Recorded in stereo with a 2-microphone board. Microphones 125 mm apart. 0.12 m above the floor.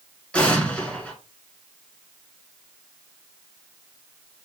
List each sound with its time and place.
0.3 s an explosion: 10° left (ahead or behind), 1.4 m